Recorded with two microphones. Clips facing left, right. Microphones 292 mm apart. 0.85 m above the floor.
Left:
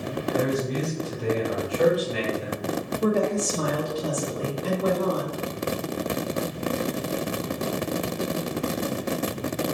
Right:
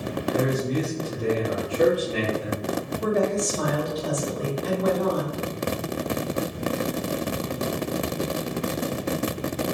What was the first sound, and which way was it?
A man speaking, 30° right (ahead or behind).